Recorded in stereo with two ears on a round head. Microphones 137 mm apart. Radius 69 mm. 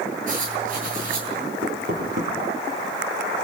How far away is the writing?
About 9 m.